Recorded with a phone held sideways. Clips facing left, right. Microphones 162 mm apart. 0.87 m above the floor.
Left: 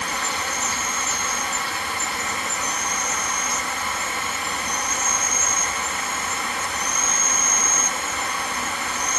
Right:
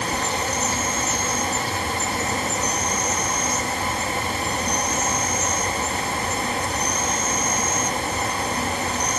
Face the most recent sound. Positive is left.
turn(degrees=-35)  # may be behind; listen again after turning